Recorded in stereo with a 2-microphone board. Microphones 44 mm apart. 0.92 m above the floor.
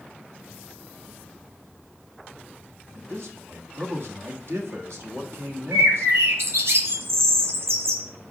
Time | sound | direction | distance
3.0 | a man speaking | 65° right (ahead or behind) | 1.4 m
5.7 | a bird | 70° right (ahead or behind) | 1.9 m